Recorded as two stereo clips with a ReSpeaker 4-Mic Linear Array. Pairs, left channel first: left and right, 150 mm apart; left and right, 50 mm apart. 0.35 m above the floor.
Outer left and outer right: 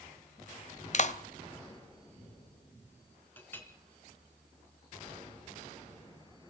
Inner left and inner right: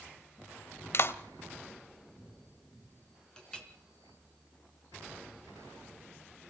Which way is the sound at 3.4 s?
15° left (ahead or behind).